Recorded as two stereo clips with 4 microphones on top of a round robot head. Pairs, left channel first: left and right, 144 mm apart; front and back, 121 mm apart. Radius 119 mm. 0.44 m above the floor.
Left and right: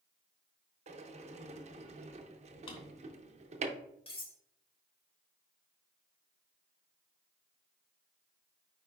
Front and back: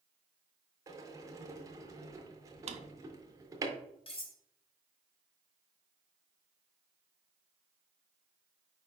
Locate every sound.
0.9 s a sliding door: 120° right, 0.6 m
2.7 s a drawer: 150° left, 0.6 m
4.1 s cutlery clinking: 40° left, 1.3 m